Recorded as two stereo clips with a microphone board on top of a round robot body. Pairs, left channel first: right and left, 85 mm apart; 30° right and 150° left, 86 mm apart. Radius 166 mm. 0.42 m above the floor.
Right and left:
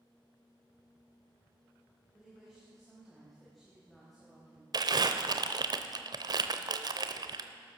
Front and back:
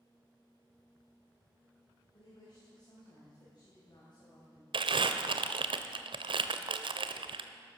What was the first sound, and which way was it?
A woman speaking, straight ahead.